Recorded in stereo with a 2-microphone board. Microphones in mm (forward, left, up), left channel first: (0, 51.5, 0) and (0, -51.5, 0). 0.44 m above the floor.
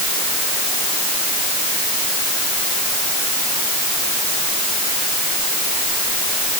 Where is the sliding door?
I don't hear a sliding door.